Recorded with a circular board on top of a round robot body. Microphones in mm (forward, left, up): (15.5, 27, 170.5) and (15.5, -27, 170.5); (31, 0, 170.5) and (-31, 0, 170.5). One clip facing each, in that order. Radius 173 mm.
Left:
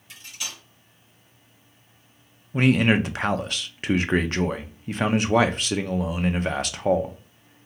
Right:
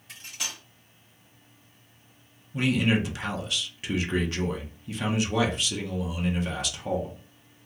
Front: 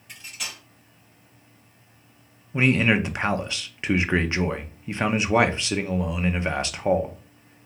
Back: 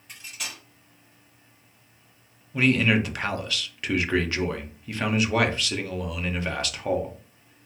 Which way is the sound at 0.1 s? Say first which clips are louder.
Even, front 1 dB; 90° right.